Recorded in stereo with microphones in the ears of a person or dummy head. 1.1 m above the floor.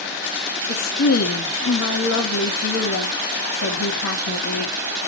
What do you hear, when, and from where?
0.7 s a woman speaking: 85° left, 2 m